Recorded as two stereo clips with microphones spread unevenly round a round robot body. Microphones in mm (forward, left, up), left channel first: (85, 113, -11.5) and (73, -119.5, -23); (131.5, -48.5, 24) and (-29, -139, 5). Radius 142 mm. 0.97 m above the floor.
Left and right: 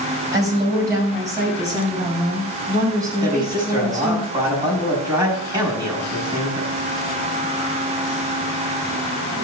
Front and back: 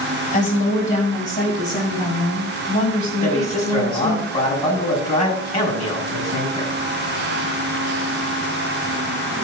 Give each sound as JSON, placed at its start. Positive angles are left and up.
{"t": 0.3, "sound": "a woman speaking", "azimuth_deg": -15, "distance_m": 5.0}
{"t": 3.2, "sound": "a man speaking", "azimuth_deg": -20, "distance_m": 6.5}